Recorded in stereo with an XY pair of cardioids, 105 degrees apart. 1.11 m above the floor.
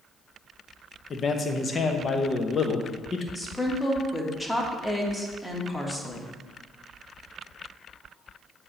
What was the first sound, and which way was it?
A man speaking, 40° left.